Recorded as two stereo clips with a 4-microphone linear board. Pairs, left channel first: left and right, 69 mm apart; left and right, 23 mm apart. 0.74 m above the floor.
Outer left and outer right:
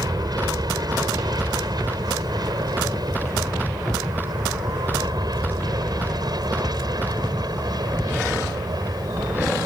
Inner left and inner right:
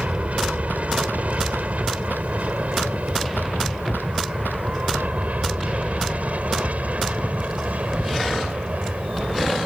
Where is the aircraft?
65° right (ahead or behind).